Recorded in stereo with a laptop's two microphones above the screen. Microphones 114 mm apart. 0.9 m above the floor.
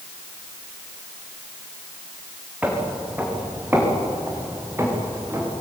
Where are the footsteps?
15° right (ahead or behind), 4 m; by 5.5 s 25° right (ahead or behind), 6 m.